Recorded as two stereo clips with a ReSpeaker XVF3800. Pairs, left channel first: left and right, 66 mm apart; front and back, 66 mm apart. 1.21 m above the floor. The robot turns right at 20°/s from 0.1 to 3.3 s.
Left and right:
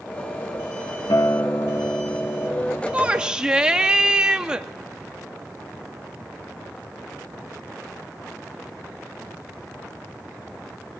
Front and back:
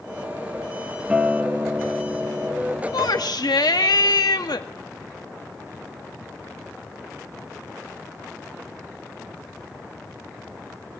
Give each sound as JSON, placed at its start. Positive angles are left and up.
{"t": 1.1, "sound": "a guitar", "azimuth_deg": 100, "distance_m": 1.8}
{"t": 2.9, "sound": "a shout", "azimuth_deg": -20, "distance_m": 2.0}